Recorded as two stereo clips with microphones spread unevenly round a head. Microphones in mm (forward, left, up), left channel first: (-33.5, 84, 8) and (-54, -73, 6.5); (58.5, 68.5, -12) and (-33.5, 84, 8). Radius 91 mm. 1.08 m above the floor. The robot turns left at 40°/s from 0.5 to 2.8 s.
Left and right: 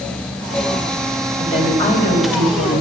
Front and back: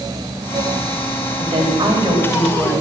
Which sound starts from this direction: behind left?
A woman speaking, at 1.4 s.